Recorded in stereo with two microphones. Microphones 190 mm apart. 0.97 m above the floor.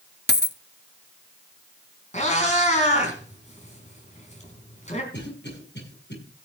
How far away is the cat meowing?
About 3.5 m.